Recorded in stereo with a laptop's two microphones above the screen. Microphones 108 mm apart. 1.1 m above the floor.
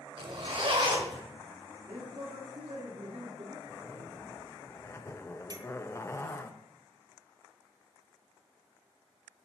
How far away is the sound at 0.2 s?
About 1.4 m.